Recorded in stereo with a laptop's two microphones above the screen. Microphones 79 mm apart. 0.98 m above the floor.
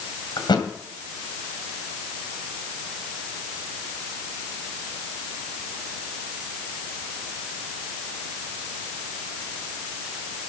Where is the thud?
70° left (ahead or behind), 2.5 m.